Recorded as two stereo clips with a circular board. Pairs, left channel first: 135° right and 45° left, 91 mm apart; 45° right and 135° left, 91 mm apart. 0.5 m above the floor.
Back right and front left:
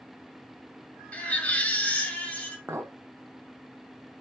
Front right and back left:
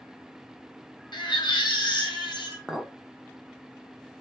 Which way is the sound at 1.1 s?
65° right.